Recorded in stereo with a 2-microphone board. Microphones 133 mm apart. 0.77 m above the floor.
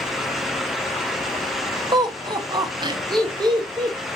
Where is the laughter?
35° right (ahead or behind), 0.7 m.